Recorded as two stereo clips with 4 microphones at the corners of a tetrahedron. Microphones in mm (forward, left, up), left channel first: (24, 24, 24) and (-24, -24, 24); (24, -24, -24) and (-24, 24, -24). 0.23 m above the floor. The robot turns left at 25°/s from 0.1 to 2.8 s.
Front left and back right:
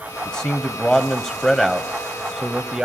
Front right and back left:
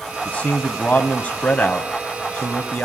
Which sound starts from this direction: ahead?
A man speaking, at 0.2 s.